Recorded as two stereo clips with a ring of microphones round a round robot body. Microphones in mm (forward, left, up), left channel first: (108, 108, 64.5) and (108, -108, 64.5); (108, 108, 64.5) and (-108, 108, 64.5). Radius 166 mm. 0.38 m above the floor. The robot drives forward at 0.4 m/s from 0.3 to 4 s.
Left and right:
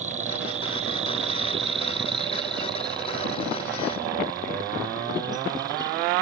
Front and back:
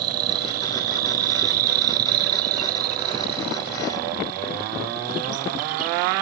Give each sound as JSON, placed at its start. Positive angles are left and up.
{"t": 0.0, "sound": "an insect", "azimuth_deg": -160}